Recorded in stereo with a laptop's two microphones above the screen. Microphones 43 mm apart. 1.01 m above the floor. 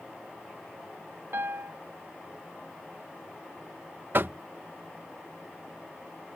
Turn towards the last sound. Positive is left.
turn(degrees=-50)  # may be behind; listen again after turning